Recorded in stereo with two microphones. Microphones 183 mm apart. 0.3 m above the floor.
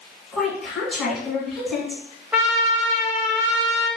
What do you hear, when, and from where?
0.3 s a woman speaking: 5° left (ahead or behind), 1.1 m
2.3 s a trumpet: 10° right (ahead or behind), 0.8 m